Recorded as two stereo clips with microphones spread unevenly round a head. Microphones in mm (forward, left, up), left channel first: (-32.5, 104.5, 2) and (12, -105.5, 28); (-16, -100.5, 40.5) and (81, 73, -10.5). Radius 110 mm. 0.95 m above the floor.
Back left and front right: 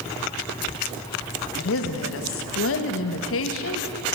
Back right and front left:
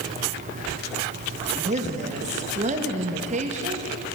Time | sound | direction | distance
1.6 | a woman speaking | 110° left | 0.9 m